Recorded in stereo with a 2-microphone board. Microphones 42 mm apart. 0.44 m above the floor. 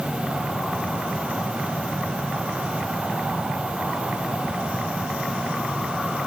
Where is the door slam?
No door slam in this recording.